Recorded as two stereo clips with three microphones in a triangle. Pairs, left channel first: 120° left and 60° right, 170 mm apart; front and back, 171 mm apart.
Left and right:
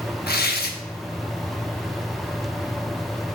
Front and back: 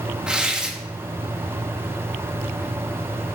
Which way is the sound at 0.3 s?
95° left.